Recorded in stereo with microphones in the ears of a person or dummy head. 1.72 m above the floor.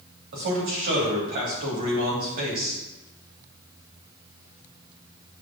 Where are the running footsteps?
No running footsteps in this recording.